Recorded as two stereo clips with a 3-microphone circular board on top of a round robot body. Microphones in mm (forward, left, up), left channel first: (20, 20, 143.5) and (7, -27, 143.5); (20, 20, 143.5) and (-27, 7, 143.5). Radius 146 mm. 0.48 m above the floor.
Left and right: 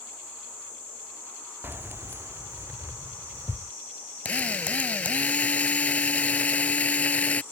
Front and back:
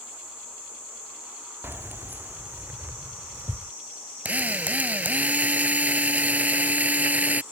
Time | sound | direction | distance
1.6 | keys jangling | 135° right | ?
4.2 | a drill | 140° left | ?